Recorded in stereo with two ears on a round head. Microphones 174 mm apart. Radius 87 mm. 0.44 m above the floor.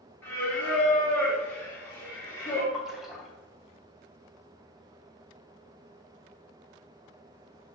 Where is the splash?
Centre (ahead or behind), 1.8 m.